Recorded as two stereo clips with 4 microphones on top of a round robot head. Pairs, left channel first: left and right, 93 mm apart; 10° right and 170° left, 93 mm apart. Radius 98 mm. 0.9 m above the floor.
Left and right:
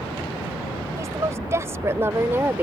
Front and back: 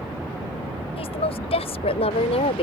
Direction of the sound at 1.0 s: 25° right.